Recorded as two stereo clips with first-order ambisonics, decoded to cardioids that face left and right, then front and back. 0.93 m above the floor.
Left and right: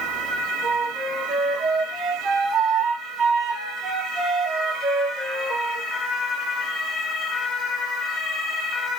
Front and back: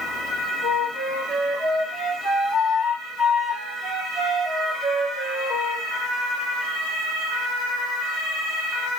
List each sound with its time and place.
0.6 s a flute: 55° right, 1.0 m